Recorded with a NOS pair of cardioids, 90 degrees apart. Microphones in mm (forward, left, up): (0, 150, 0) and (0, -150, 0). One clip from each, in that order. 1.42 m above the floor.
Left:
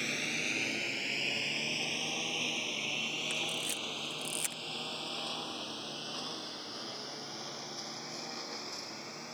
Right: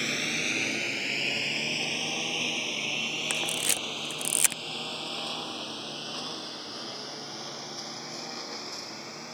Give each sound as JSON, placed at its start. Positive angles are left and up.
{"t": 0.0, "sound": "a lawn mower", "azimuth_deg": -40}
{"t": 3.3, "sound": "a camera shutter", "azimuth_deg": -65}